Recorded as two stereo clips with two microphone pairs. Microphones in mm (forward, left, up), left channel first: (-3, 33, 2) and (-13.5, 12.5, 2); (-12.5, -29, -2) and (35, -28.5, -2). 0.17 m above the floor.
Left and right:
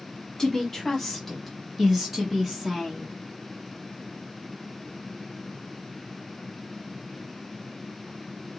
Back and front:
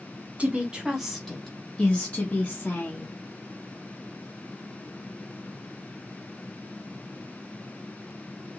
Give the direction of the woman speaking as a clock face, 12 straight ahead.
12 o'clock.